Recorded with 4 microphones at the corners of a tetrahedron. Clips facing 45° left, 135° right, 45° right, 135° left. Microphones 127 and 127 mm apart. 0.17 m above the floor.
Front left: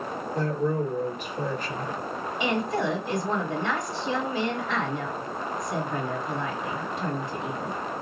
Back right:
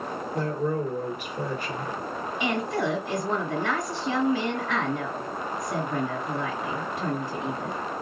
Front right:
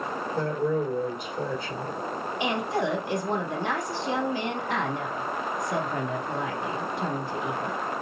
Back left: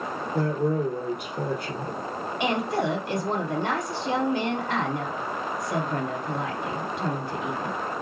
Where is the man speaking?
145° left, 2.5 m.